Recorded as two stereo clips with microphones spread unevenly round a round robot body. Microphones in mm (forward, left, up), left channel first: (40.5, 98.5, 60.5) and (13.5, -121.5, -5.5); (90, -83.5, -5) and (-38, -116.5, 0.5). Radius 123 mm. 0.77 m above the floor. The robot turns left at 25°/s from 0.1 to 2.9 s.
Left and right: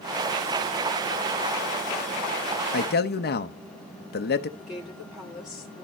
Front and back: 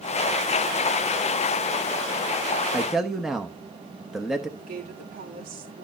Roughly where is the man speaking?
Left.